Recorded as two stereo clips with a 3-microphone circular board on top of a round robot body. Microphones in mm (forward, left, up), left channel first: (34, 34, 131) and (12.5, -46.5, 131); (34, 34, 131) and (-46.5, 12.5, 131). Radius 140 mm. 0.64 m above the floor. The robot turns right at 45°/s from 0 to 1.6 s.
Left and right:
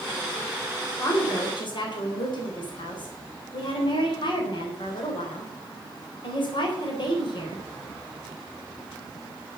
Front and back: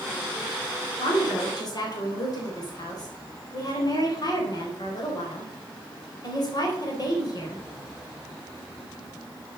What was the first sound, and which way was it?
A woman speaking, 25° left.